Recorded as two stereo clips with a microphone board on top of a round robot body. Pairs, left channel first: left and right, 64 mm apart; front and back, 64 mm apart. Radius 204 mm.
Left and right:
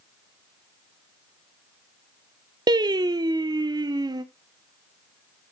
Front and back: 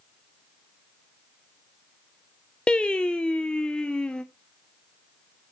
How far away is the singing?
About 0.6 m.